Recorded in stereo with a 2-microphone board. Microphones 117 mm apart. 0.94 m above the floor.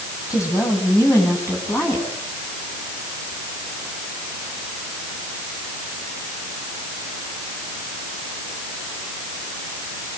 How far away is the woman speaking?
About 8.5 m.